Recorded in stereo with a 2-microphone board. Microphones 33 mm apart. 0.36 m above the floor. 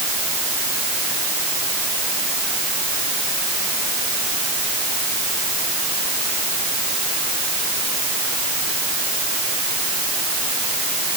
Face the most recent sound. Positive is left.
No sound to turn to.